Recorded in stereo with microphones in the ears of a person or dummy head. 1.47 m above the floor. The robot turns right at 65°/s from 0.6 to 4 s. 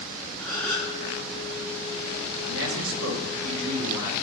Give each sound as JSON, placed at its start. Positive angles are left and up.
{"t": 0.4, "sound": "a gasp", "side_deg": 15, "distance_m": 3.5}
{"t": 2.5, "sound": "a man speaking", "azimuth_deg": -115, "distance_m": 1.7}